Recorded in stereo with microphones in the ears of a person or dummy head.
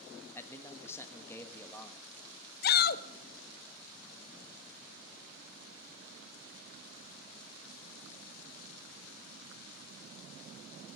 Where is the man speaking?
20° left (ahead or behind), 1.4 m.